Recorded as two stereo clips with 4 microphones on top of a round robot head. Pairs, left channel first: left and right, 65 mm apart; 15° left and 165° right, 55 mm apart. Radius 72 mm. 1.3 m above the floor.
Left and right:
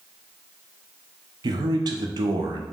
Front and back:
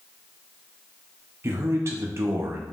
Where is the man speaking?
115° right, 0.6 m.